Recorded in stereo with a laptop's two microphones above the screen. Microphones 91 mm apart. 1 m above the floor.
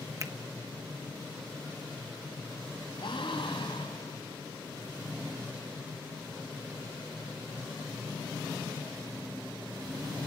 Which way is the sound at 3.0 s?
70° left (ahead or behind).